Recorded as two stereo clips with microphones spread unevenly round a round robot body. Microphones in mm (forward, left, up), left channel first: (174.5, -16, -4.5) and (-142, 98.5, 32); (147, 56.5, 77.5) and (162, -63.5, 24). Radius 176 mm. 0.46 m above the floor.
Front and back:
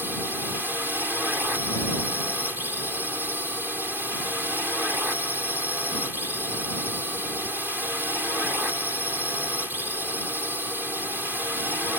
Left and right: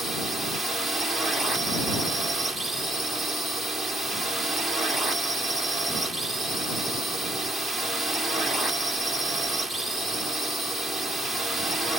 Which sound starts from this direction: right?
A drone, at 0.0 s.